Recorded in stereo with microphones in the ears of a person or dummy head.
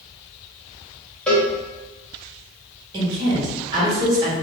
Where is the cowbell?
10° left (ahead or behind), 0.9 m.